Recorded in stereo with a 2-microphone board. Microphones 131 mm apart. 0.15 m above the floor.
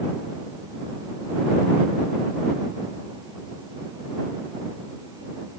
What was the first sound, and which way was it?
Only background noise.